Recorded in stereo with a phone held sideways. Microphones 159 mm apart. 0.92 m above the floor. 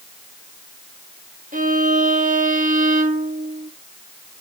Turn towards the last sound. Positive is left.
turn(degrees=-55)  # may be behind; listen again after turning